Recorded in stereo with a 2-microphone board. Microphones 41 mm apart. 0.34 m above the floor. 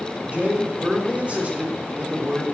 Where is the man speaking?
30° right (ahead or behind), 1.4 m.